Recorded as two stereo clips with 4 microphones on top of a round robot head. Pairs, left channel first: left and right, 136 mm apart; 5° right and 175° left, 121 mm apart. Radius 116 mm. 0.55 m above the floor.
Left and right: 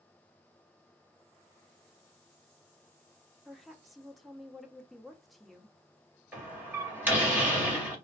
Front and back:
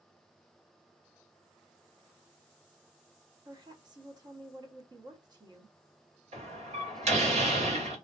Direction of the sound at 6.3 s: 165° right.